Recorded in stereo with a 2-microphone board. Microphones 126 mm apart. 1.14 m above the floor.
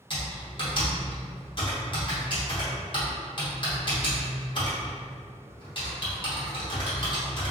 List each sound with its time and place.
0.1 s typing on a keyboard: 40° left (ahead or behind), 0.9 m